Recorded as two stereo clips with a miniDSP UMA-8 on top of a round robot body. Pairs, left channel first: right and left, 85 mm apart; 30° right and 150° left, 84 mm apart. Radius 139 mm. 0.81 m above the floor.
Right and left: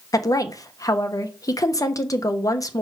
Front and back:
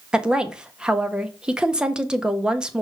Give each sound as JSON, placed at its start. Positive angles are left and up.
{"t": 0.1, "sound": "a woman speaking", "azimuth_deg": -130, "distance_m": 1.3}